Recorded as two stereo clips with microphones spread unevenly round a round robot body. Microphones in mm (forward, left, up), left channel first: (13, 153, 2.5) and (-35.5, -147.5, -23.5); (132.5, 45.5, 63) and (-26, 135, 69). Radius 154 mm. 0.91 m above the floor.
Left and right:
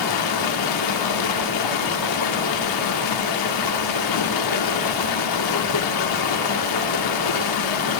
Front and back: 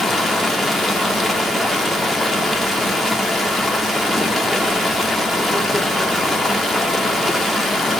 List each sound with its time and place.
0.0 s running water: 60° left, 1.2 m